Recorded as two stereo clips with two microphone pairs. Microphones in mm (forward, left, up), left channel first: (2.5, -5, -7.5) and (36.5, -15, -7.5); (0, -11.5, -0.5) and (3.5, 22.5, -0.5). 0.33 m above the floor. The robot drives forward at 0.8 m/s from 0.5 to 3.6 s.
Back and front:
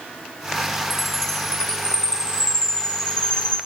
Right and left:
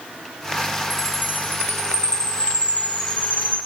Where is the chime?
110° right, 3.5 m; by 3.6 s 135° right, 4.5 m.